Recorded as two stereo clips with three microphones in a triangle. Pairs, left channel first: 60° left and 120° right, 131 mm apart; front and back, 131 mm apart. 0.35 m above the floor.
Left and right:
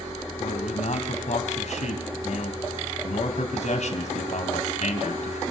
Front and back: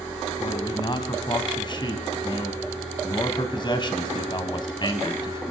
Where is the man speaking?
50° left, 3 m.